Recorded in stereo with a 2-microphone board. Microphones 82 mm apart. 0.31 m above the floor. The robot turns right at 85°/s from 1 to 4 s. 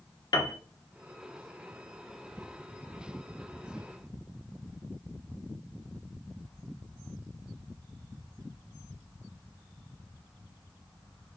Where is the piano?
55° left (ahead or behind), 0.8 m.